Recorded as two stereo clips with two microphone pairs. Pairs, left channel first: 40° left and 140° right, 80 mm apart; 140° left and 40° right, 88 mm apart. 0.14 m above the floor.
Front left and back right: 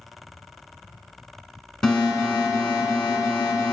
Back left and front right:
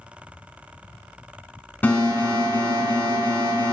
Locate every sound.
1.8 s an alarm: 110° left, 0.8 m